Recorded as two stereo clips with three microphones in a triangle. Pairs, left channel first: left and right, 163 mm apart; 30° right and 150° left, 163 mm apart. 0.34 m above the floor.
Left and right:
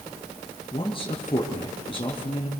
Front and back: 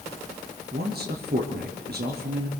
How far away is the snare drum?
No snare drum in this recording.